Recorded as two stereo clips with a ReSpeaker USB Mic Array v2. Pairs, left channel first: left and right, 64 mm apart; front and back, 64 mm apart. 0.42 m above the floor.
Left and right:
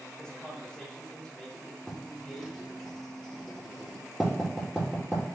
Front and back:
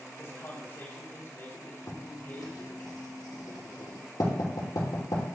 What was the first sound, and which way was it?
A man speaking, 20° left.